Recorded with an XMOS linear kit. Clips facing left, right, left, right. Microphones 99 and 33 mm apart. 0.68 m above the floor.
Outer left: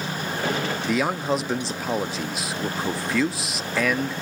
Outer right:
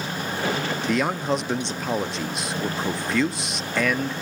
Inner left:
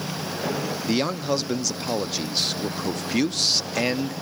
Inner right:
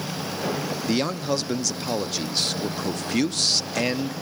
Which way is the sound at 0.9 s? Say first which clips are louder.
Even, inner left 1 dB; 5° left (ahead or behind).